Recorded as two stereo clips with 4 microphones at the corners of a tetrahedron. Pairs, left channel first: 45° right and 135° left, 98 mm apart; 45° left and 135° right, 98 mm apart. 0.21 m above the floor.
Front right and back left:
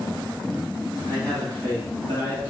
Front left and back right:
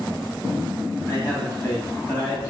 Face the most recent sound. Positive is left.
turn(degrees=10)